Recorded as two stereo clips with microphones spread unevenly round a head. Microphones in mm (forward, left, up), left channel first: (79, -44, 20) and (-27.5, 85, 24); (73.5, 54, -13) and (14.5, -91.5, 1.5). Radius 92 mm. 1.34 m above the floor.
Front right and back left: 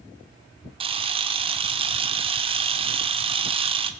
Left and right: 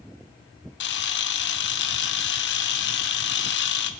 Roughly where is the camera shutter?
Left.